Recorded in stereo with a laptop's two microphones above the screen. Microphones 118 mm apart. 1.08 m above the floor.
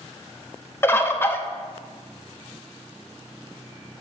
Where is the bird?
20° left (ahead or behind), 0.7 m.